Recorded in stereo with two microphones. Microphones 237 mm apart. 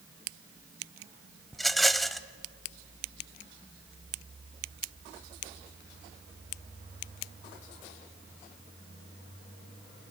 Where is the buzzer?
I don't hear a buzzer.